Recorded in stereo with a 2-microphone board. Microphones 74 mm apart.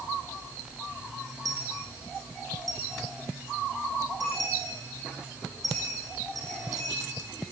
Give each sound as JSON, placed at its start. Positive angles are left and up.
{"t": 1.4, "sound": "a dropped coin", "side_deg": -55, "distance_m": 8.0}